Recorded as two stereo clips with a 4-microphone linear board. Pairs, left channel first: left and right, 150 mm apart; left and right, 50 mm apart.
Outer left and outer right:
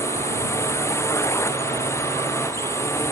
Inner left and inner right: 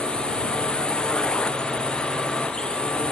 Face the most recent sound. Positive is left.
turn(degrees=20)  # may be behind; listen again after turning